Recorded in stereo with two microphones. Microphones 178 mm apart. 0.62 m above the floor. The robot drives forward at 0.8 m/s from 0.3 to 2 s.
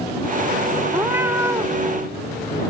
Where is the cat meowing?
15° right (ahead or behind).